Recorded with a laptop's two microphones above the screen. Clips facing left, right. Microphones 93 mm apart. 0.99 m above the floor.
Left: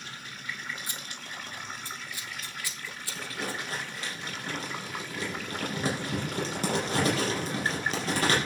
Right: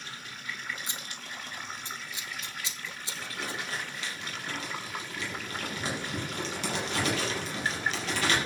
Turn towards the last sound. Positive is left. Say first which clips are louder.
# left 2 dB
turn(degrees=40)  # may be behind; listen again after turning